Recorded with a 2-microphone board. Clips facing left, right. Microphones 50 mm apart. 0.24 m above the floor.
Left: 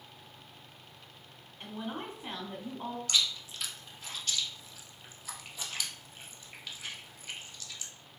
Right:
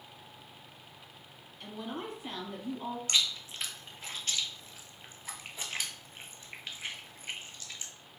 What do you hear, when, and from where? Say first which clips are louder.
1.6 s a woman speaking: even; 25° left (ahead or behind), 1.2 m
3.1 s chewing: even; 35° right (ahead or behind), 0.6 m